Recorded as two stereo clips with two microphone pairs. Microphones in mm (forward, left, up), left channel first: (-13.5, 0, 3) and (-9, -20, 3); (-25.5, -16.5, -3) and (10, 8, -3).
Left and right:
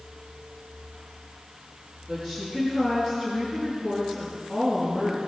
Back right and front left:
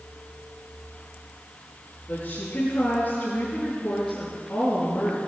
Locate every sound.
2.1 s a woman speaking: 160° left, 5.5 m